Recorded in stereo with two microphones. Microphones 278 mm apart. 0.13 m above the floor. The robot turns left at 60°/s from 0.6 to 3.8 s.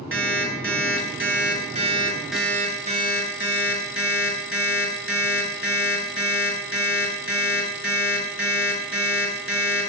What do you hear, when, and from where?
0.1 s an alarm clock: 75° right, 0.6 m; by 9.9 s 95° left, 0.6 m